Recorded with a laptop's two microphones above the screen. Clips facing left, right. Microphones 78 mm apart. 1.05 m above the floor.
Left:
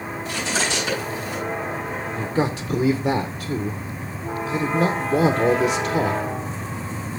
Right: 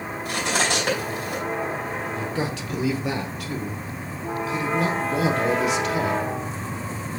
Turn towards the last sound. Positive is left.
turn(degrees=30)  # may be behind; listen again after turning